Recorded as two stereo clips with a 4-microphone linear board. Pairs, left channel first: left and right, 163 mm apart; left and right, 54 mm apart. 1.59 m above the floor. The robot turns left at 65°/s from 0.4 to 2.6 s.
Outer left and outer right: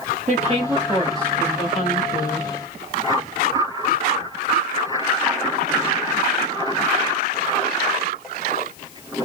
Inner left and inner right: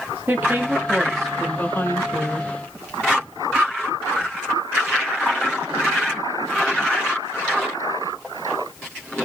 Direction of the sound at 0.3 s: 135° right.